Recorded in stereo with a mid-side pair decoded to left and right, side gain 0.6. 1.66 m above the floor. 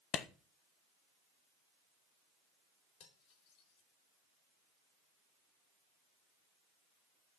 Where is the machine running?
I don't hear a machine running.